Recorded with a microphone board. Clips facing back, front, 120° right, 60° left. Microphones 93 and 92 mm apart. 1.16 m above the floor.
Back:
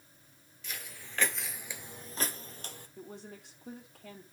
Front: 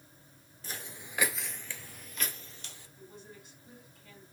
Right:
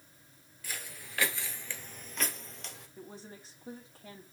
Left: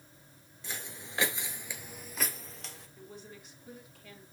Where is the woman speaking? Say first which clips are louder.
Back 4 dB, right 1 dB; 175° right, 3 m.